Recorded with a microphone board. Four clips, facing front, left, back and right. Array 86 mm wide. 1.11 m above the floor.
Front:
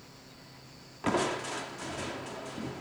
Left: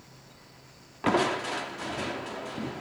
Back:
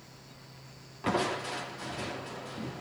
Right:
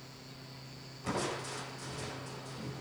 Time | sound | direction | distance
1.0 | crushing | 80° left | 2.5 m